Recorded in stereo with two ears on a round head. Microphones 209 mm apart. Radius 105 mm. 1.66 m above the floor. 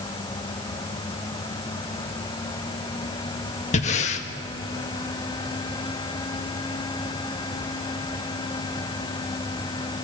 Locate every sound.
3.7 s breathing: 30° left (ahead or behind), 1.5 m